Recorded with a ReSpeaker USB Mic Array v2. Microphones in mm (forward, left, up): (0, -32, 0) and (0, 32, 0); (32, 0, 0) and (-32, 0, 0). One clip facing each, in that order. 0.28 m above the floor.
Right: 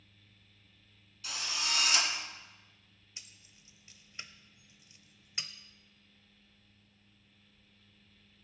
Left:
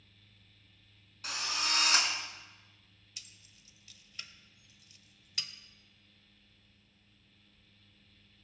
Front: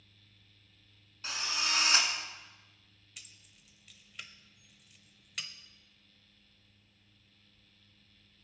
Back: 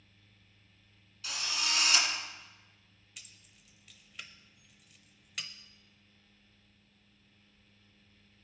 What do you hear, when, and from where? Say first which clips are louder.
1.2 s a drill: left 2 dB, front 1 dB; 55° left, 1.9 m
3.2 s keys jangling: even, even; 90° right, 0.6 m